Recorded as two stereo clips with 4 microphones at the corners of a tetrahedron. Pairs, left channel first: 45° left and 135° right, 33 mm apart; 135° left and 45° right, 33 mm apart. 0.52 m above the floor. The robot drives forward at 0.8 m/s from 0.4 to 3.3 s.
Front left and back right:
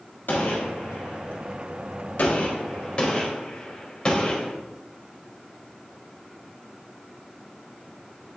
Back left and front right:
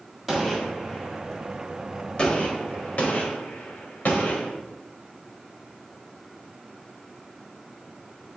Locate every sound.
0.3 s a gunshot: 40° left, 2 m; by 4.6 s 120° left, 1.6 m